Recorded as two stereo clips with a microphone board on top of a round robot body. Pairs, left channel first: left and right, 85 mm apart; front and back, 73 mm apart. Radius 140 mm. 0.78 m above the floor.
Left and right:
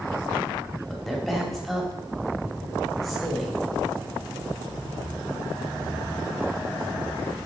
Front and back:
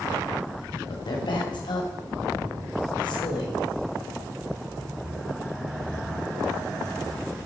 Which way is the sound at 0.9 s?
Straight ahead.